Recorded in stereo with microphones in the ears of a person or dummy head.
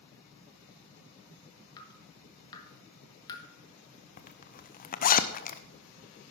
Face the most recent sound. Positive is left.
turn(degrees=50)  # may be behind; listen again after turning